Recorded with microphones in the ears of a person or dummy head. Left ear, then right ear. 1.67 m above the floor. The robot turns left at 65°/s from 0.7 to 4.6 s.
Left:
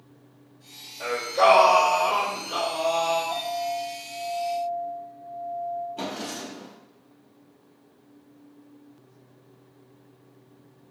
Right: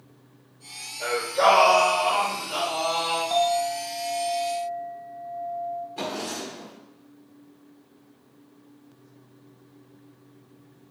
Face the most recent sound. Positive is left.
turn(degrees=-50)  # may be behind; listen again after turning